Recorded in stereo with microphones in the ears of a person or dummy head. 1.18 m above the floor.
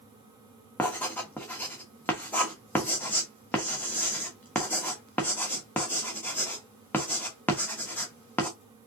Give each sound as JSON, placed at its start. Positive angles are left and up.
{"t": 0.8, "sound": "writing", "side_deg": 10, "distance_m": 1.0}